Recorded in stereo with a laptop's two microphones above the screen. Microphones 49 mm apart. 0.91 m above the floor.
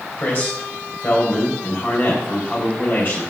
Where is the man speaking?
50° left (ahead or behind), 3.5 m.